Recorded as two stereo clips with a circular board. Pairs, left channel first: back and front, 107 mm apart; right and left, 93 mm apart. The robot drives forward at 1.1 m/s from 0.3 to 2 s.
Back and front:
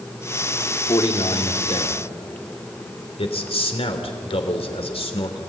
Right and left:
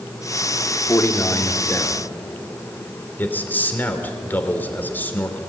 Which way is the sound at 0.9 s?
145° right.